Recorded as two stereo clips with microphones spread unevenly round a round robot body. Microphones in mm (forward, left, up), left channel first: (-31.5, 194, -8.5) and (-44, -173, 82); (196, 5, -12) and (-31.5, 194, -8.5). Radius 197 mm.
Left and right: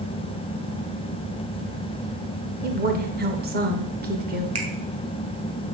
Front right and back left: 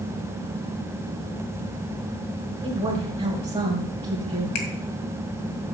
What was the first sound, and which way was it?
A woman speaking, 160° right.